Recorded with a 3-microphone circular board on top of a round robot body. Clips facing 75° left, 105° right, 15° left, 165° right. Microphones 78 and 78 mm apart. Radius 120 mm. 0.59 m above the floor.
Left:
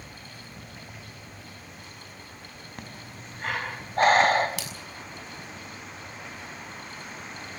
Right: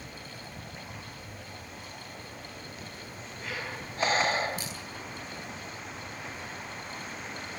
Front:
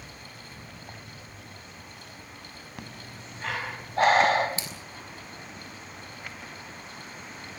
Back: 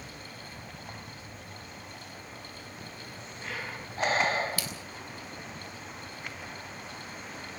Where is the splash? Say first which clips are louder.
Left 1 dB, back 1 dB; 80° left, 6 m.